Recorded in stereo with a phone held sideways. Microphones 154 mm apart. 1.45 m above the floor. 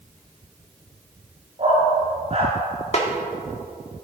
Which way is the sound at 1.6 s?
45° right (ahead or behind).